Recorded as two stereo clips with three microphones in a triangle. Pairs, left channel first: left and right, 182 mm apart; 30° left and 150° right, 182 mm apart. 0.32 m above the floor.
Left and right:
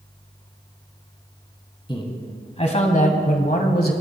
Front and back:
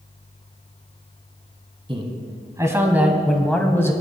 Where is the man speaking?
150° left, 2 m; by 3.9 s 100° left, 1.4 m.